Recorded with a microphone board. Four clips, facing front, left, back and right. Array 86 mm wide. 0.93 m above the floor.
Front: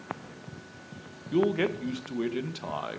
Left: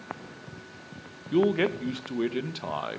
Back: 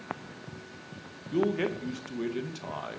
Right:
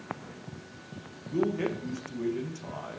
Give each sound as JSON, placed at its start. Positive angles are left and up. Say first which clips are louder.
{"t": 1.3, "sound": "a man speaking", "louder": "left 5 dB, front 2 dB", "azimuth_deg": 70, "distance_m": 0.6}